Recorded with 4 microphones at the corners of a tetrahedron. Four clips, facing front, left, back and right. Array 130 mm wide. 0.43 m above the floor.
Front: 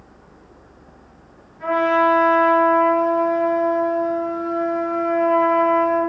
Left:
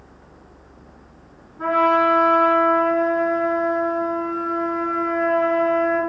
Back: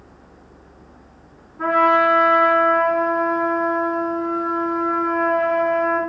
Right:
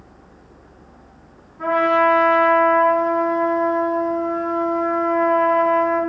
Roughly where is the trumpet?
Behind.